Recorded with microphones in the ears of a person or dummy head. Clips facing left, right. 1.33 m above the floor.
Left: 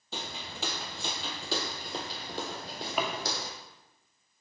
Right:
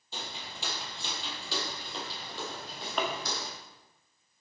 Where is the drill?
No drill in this recording.